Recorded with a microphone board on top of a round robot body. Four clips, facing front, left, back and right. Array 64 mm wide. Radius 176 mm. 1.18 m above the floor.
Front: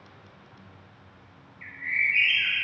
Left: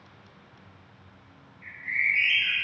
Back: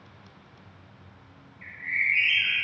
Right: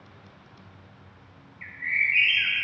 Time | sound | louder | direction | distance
1.6 | a bird | right 1 dB, front 1 dB | 80° right | 3 m